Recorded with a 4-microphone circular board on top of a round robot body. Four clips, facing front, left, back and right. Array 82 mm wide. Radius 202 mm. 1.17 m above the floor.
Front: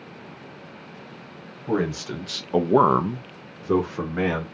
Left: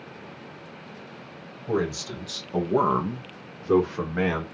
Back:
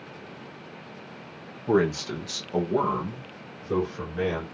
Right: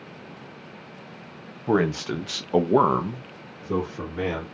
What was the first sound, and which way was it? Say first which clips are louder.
A man speaking: right 4 dB, back 2 dB; 95° right.